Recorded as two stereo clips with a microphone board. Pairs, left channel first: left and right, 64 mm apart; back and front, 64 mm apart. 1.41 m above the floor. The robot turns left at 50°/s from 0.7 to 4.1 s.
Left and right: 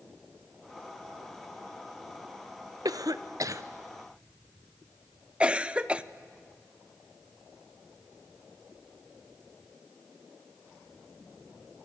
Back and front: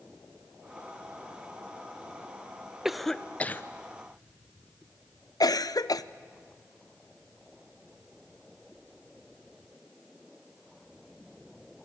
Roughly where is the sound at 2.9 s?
Right.